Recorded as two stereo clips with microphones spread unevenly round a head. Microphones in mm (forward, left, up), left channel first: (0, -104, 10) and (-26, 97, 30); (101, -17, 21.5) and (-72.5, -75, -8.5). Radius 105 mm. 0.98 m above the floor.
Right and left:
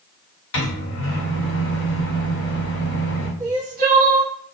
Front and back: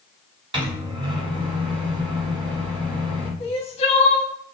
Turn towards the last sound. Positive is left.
turn(degrees=70)